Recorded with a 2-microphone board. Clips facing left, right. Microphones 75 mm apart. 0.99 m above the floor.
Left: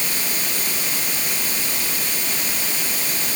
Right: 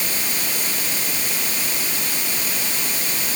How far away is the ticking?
I don't hear ticking.